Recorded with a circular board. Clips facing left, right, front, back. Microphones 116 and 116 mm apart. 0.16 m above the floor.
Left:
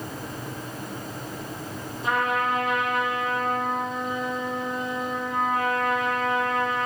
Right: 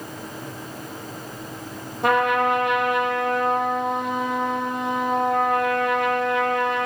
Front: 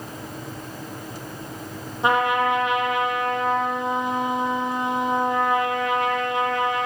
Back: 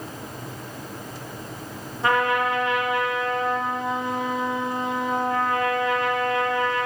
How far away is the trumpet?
About 5.5 m.